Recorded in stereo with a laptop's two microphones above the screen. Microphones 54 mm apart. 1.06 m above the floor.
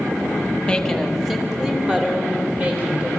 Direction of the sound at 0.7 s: 15° left (ahead or behind).